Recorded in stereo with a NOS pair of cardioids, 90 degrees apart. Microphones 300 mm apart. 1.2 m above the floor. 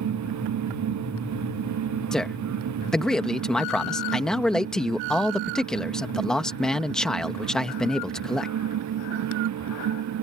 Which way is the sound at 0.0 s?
70° right.